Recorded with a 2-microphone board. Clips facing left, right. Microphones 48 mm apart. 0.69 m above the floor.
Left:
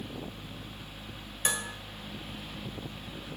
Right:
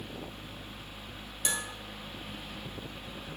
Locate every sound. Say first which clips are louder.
1.4 s dishes clattering: left 2 dB; 35° left (ahead or behind), 1.6 m